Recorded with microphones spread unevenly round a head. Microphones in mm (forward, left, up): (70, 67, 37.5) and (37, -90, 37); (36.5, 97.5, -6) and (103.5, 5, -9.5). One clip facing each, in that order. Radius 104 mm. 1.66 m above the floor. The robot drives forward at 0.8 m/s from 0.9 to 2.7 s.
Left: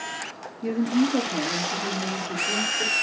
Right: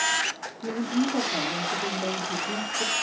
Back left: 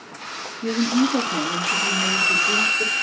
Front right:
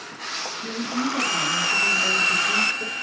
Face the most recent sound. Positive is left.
turn(degrees=150)